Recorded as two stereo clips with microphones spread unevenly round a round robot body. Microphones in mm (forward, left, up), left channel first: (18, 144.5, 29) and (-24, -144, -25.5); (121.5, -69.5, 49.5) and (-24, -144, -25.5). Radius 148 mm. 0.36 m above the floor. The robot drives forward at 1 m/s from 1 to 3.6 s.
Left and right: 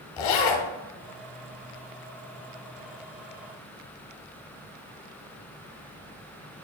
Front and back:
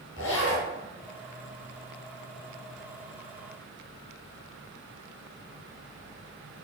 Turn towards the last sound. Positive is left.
turn(degrees=155)